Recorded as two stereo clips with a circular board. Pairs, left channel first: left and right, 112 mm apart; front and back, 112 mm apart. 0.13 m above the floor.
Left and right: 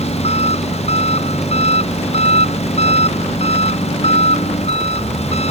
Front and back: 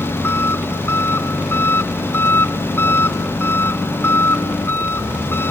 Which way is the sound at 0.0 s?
70° left.